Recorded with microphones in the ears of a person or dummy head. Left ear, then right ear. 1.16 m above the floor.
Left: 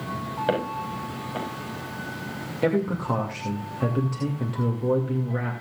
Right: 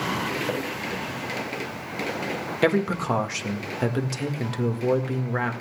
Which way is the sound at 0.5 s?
40° left (ahead or behind).